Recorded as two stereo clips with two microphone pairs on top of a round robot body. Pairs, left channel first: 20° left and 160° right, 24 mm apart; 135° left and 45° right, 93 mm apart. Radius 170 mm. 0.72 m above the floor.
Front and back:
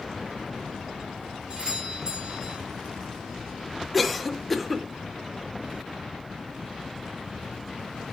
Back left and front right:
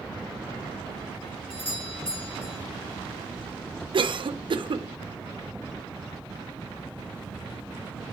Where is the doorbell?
150° left, 4.5 m.